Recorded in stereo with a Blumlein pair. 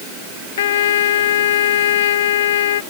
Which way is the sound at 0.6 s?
60° left.